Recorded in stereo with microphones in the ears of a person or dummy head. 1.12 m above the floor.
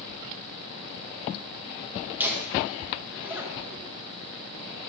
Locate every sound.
2.2 s laughter: 10° right (ahead or behind), 0.8 m